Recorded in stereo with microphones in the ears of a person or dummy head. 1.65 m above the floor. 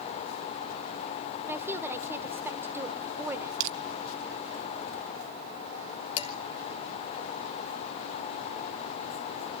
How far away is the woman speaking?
About 1.1 m.